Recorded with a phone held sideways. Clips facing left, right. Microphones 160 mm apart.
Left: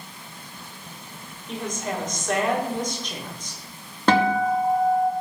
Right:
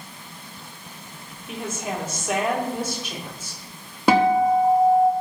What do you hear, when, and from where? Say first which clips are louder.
1.5 s a woman speaking: even; 10° right (ahead or behind), 2.5 m
4.1 s a guitar: right 3 dB; 10° right (ahead or behind), 1.1 m